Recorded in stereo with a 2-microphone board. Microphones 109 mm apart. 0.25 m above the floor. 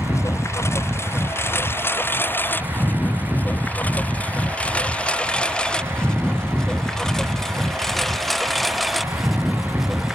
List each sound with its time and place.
0.0 s a lawn mower: 25° left (ahead or behind); by 10.2 s 5° right (ahead or behind)